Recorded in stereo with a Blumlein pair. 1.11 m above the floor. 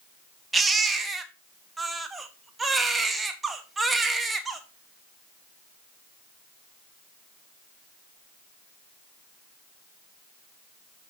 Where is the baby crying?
10° right, 1.0 m.